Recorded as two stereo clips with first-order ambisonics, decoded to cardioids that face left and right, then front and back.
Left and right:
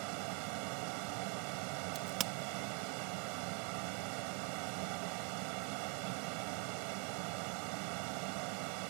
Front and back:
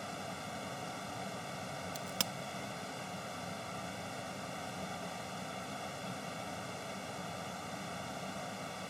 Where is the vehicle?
85° right.